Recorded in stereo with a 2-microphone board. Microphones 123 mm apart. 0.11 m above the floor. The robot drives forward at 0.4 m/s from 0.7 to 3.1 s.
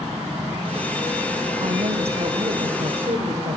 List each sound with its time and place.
1.6 s a woman speaking: 60° right (ahead or behind), 3.5 m; by 3.6 s 55° right (ahead or behind), 3.5 m